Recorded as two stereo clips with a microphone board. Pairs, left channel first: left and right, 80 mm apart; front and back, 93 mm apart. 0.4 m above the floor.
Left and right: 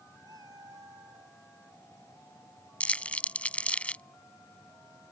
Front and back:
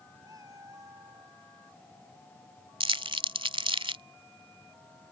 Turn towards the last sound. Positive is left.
turn(degrees=165)